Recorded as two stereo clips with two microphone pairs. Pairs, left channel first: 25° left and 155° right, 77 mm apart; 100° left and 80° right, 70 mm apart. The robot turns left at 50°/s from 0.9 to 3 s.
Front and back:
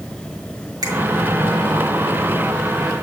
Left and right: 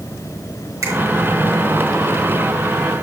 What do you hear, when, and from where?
0.8 s a finger snap: 120° right, 3 m